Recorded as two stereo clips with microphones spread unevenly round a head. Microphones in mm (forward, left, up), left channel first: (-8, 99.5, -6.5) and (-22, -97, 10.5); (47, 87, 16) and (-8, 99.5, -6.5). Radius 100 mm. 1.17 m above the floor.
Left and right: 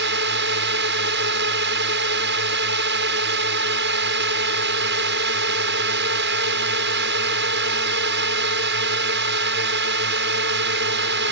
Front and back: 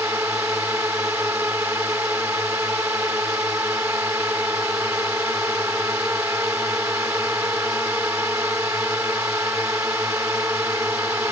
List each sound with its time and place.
0.0 s a drone: 120° right